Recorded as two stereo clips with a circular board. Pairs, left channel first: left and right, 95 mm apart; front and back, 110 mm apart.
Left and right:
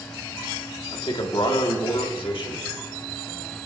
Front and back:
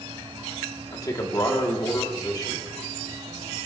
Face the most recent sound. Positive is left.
turn(degrees=55)